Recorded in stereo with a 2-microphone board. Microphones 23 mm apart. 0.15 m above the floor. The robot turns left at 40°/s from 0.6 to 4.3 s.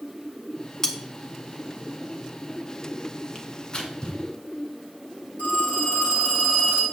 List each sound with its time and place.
0.8 s cutlery clinking: 20° left (ahead or behind), 0.9 m
3.4 s tearing paper: 40° left (ahead or behind), 1.1 m; by 4.2 s 35° left (ahead or behind), 1.1 m
5.4 s a phone ringing: 80° left, 4 m